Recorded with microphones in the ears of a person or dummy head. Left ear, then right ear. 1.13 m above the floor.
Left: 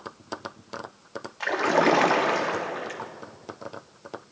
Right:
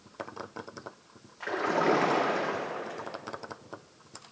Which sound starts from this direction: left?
A splash, at 1.4 s.